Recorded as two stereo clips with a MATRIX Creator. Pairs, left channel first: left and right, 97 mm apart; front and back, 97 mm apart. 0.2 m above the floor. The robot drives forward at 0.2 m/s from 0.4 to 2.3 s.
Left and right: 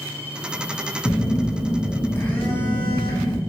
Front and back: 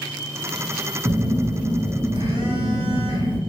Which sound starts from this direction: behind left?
A phone buzzing, at 1.1 s.